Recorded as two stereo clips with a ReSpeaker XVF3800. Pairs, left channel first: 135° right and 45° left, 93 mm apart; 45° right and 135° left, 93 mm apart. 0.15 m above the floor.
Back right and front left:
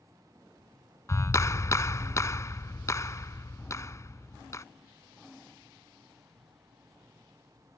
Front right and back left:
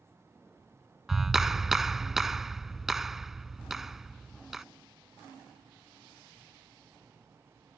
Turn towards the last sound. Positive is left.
turn(degrees=-140)